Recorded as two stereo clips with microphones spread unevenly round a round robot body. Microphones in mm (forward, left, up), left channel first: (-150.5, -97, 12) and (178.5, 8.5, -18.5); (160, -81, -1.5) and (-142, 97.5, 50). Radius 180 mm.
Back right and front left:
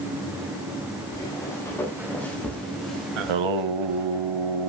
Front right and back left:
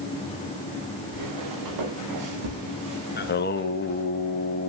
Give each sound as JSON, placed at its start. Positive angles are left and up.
{"t": 1.1, "sound": "footsteps", "azimuth_deg": 120, "distance_m": 6.5}
{"t": 3.2, "sound": "singing", "azimuth_deg": 30, "distance_m": 1.6}